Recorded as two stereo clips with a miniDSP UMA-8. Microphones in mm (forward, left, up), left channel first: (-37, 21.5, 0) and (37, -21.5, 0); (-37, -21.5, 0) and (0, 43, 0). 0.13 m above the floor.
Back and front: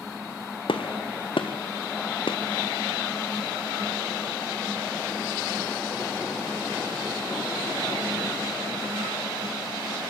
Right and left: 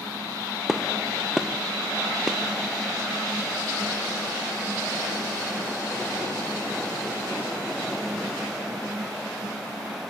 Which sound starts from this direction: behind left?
A gunshot, at 0.7 s.